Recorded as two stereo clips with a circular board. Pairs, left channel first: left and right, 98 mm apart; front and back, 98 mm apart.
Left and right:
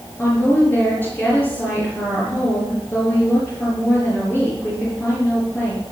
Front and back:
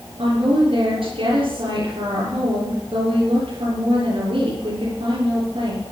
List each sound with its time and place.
0.2 s a woman speaking: 160° left, 6.5 m